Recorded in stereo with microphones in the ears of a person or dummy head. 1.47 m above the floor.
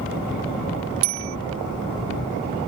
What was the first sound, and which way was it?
A bicycle bell, 75° right (ahead or behind).